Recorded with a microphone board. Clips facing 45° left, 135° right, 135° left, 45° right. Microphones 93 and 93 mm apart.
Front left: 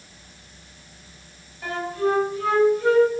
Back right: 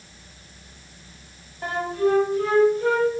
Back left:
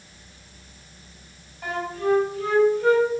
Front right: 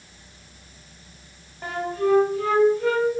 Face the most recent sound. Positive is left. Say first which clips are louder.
# back right 1 dB, front right 1 dB
turn(degrees=-85)